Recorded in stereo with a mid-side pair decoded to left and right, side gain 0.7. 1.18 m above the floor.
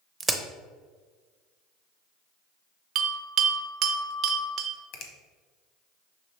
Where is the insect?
No insect in this recording.